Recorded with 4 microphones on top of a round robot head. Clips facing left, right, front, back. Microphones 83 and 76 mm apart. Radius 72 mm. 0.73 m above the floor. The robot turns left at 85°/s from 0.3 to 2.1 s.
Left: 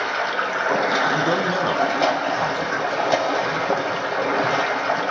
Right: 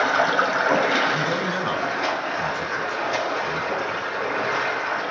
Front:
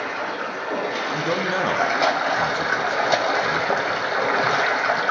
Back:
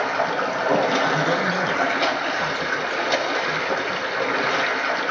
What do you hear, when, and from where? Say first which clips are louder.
0.0 s running water: right 4 dB, back 5 dB; 145° right, 1.5 m; by 5.1 s 60° left, 1.5 m
1.1 s a man speaking: left 3 dB, back 2 dB; 90° left, 1.2 m; by 4.4 s 5° left, 1.2 m